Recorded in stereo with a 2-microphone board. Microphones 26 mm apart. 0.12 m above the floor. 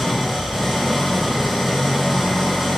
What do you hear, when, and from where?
0.0 s an engine running: 5° left (ahead or behind), 1.3 m